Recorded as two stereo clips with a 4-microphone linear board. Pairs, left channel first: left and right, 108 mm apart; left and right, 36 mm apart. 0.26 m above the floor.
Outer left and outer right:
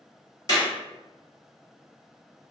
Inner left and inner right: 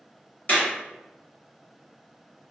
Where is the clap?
40° left (ahead or behind), 1.8 m.